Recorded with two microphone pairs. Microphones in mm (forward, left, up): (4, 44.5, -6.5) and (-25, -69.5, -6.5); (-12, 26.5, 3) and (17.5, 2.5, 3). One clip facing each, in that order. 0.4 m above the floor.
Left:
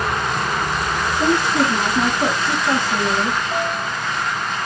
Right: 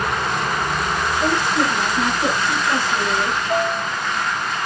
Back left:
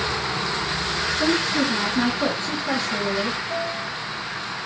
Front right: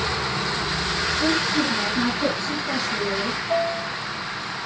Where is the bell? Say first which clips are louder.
Right 2 dB, front right 4 dB; 100° right, 3 m.